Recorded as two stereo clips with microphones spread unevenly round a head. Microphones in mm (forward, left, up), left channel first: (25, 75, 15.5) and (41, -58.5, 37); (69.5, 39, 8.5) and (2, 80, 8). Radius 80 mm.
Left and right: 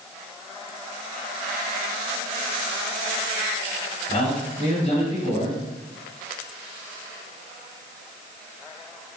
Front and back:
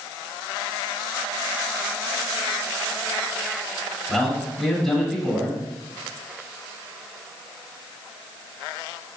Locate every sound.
4.1 s a man speaking: 55° left, 2 m